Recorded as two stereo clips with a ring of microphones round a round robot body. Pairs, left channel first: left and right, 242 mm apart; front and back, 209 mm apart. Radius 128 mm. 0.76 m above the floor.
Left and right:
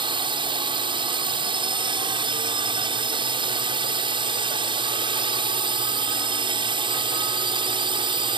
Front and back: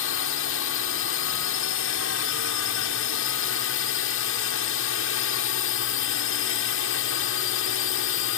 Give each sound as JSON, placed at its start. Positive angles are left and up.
{"t": 0.0, "sound": "a drone", "azimuth_deg": -20}